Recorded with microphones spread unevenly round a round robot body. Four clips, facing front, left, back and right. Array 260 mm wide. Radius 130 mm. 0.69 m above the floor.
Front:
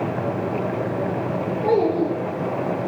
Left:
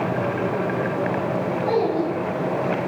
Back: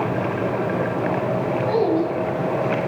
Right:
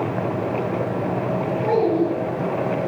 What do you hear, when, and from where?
1.6 s a child speaking: 5° right, 9 m